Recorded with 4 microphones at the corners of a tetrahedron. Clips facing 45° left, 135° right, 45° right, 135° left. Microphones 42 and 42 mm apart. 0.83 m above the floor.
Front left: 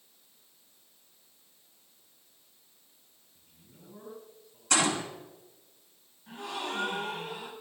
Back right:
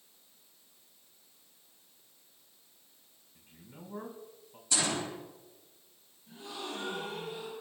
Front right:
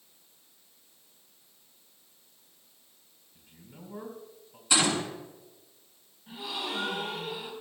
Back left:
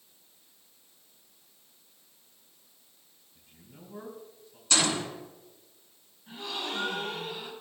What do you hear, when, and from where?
3.4 s a man speaking: 100° right, 5 m
4.7 s a gunshot: 30° left, 3.5 m
6.3 s a gasp: 40° left, 5 m